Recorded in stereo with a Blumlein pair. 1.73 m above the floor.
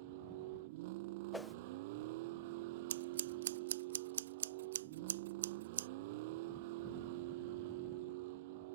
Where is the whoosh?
5° left.